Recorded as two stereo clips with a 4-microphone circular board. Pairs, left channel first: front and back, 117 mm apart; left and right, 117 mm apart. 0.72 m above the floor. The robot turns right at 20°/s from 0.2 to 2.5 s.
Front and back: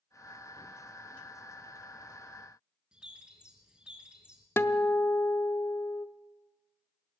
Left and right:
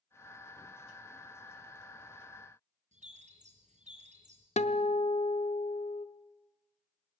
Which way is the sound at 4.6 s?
70° left.